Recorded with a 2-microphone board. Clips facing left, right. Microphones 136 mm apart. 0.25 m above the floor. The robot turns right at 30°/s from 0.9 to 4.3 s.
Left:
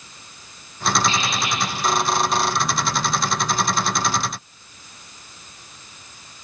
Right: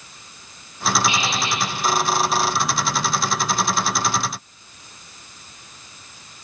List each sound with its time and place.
1.1 s a squeak: 10° right (ahead or behind), 8 m; by 1.6 s 30° right (ahead or behind), 8 m